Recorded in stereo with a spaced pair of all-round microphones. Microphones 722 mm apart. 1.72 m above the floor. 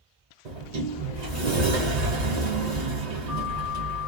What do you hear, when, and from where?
0.5 s a sliding door: 65° right (ahead or behind), 1.1 m